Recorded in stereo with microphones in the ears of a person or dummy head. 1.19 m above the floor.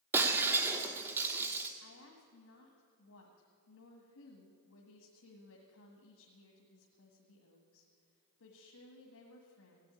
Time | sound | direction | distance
0.1 | breaking glass | 15° right (ahead or behind) | 1.1 m
1.8 | a woman speaking | 75° left (ahead or behind) | 1.8 m